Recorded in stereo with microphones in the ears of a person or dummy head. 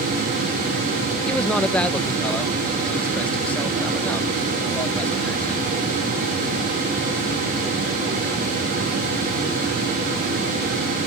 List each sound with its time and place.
1.3 s a man speaking: 10° left (ahead or behind)